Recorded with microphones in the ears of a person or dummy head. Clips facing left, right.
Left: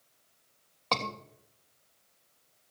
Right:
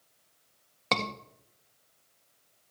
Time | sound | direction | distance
0.9 | a scream | 25° right (ahead or behind) | 1.5 m